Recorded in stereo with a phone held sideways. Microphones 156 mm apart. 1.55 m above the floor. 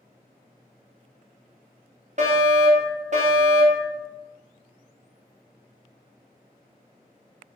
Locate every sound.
2.2 s a fire alarm: 50° right (ahead or behind), 1.9 m